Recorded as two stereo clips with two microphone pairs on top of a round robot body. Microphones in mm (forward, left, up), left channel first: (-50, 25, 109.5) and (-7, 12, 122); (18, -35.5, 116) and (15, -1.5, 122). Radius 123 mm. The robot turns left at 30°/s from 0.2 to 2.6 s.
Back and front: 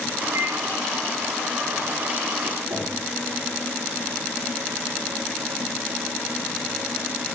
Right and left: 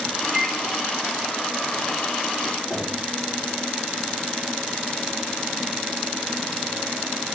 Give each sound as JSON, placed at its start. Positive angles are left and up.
{"t": 0.3, "sound": "a microwave", "azimuth_deg": 15, "distance_m": 1.0}
{"t": 2.7, "sound": "knocking", "azimuth_deg": 0, "distance_m": 2.5}